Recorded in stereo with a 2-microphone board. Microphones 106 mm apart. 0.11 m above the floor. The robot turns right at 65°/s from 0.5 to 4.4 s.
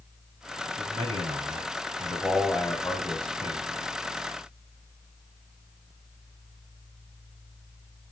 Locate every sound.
0.8 s a man speaking: 115° right, 6 m; by 3.6 s 75° left, 6 m